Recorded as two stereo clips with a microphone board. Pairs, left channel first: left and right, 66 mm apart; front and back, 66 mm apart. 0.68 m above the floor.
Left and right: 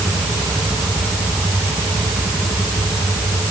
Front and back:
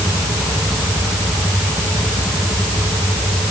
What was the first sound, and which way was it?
Only background noise.